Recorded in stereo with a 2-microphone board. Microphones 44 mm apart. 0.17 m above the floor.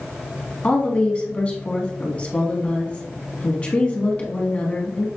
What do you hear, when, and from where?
0.6 s a woman speaking: 30° left (ahead or behind), 1.1 m